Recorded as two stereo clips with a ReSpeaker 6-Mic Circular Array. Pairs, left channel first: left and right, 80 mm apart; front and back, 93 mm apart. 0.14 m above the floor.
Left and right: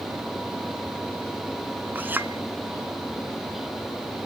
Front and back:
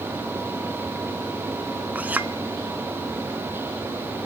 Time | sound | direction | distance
1.9 | a clink | 125° right | 0.8 m